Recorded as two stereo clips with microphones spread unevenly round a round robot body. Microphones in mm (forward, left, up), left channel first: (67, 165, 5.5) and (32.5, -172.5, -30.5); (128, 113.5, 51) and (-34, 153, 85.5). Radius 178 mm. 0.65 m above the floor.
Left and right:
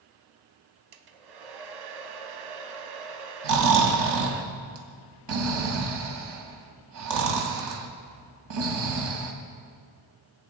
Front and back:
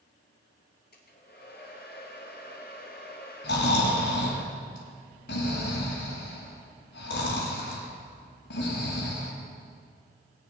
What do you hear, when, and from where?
0.9 s a hair dryer: 80° right, 1.1 m
3.4 s snoring: 65° right, 1.8 m